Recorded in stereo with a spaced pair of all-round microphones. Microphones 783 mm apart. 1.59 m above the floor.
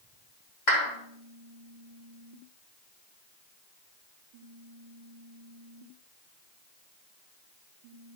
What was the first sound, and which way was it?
A clap, 65° left (ahead or behind).